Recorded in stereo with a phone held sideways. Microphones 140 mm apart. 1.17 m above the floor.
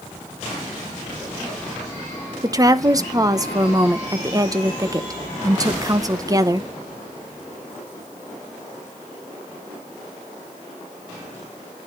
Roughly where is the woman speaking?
Right.